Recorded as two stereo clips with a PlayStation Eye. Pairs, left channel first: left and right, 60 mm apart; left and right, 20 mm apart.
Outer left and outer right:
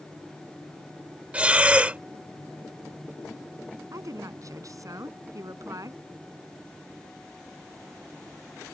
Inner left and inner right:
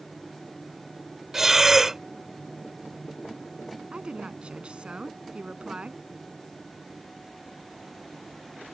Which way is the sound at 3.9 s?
65° right (ahead or behind).